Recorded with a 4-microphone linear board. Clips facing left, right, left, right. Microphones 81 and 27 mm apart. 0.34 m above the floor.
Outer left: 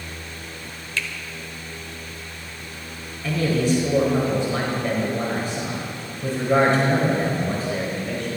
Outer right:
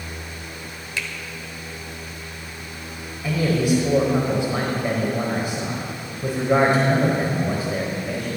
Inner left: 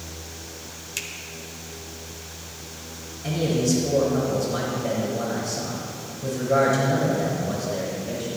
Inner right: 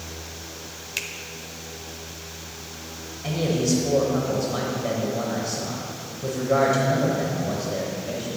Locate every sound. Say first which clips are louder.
1.0 s a finger snap: outer left 1 dB, inner right 3 dB; 15° right (ahead or behind), 0.7 m
3.2 s a man speaking: outer right 1 dB, even; 15° right (ahead or behind), 1.3 m